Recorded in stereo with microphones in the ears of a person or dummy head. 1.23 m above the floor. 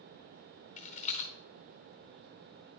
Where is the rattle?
40° left (ahead or behind), 0.8 m.